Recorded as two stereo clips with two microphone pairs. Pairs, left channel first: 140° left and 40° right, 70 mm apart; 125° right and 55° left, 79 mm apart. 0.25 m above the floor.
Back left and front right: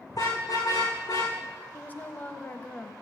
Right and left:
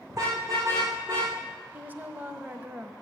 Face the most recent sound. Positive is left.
turn(degrees=100)